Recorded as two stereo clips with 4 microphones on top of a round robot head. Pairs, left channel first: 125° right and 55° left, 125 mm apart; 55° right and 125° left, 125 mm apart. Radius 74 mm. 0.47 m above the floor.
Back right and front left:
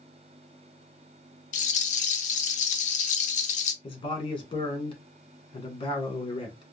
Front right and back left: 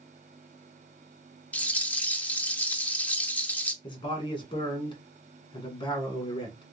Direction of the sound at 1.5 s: 135° right.